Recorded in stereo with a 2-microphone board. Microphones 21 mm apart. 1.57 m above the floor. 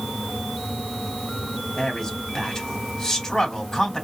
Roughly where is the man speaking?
Left.